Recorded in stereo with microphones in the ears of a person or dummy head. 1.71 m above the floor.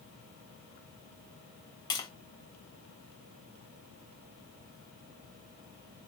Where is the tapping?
20° left (ahead or behind), 0.8 m.